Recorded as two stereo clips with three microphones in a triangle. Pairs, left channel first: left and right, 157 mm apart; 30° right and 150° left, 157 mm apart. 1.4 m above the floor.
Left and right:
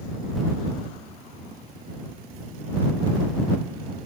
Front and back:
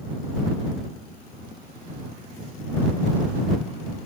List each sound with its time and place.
Only background noise.